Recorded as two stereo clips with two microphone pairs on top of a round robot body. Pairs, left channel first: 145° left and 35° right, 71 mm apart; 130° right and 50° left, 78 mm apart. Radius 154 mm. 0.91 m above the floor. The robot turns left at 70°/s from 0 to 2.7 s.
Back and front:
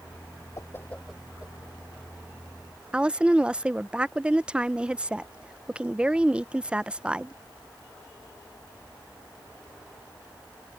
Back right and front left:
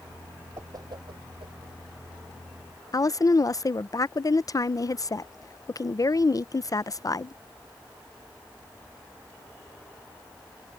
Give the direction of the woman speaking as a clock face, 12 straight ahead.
3 o'clock.